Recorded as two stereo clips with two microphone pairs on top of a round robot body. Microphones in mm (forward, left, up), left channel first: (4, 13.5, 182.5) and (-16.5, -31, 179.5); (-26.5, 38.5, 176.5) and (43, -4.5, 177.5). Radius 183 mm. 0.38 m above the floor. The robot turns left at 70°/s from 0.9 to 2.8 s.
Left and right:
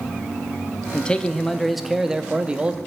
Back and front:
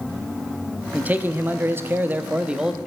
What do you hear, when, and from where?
0.9 s a man speaking: 20° left, 0.9 m; by 2.8 s 110° right, 0.9 m